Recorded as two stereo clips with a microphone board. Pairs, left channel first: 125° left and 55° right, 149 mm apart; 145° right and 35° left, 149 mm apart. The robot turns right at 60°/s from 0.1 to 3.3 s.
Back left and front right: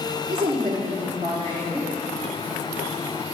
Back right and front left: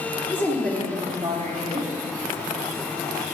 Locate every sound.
0.3 s a woman speaking: 75° right, 1.7 m; by 1.9 s 20° left, 1.7 m